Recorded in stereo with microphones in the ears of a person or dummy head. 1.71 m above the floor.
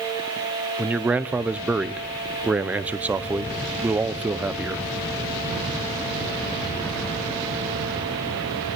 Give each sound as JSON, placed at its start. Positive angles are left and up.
{"t": 0.8, "sound": "a man speaking", "side_deg": -10, "distance_m": 0.7}